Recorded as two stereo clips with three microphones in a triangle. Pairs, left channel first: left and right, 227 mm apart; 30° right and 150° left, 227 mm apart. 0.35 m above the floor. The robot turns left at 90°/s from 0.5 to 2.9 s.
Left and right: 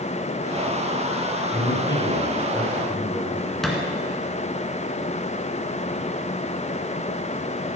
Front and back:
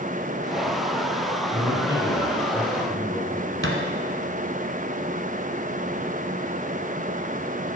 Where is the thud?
Straight behind, 1.6 m.